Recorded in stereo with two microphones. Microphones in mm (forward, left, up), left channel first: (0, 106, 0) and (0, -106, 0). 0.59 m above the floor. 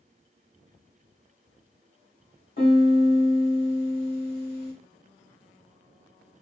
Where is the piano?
45° left (ahead or behind), 1.1 m.